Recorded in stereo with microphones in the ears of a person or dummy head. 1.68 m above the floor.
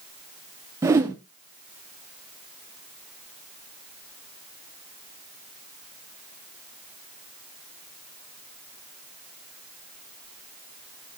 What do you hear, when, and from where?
0.8 s a whoosh: 15° right (ahead or behind), 0.7 m